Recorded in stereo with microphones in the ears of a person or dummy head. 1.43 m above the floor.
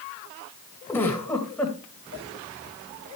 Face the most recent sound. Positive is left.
turn(degrees=15)  # may be behind; listen again after turning